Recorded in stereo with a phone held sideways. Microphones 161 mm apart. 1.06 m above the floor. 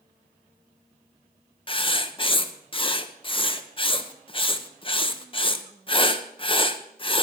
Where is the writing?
35° left (ahead or behind), 0.9 m.